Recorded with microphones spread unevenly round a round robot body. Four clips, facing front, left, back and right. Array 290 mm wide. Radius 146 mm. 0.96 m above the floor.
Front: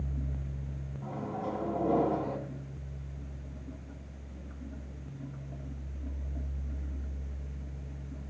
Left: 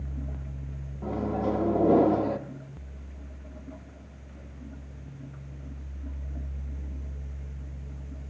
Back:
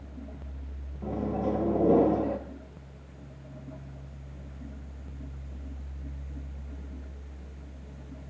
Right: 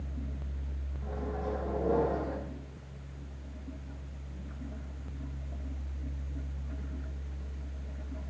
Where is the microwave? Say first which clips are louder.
Left 8 dB, back 7 dB; 135° left, 0.9 m.